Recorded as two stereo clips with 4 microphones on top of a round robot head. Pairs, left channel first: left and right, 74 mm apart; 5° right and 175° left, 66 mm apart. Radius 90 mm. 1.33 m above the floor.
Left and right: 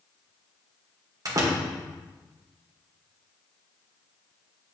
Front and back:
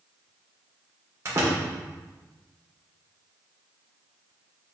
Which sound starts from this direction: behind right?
A door slam, at 1.2 s.